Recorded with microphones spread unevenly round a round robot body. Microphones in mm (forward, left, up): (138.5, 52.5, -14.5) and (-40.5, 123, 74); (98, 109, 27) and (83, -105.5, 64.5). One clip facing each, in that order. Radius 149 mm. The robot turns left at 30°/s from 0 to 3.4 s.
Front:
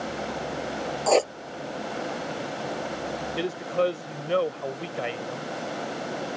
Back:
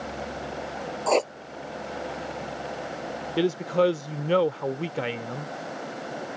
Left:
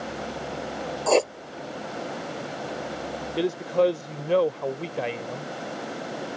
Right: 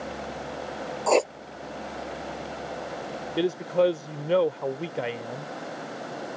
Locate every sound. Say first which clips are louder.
1.1 s writing: front 2 dB, left 1 dB; 20° left; by 1.3 s 15° left
3.4 s a man speaking: back 4 dB, even; 160° left